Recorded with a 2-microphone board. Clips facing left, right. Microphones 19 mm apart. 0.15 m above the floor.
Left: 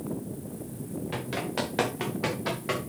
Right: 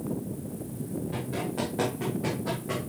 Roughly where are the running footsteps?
Left.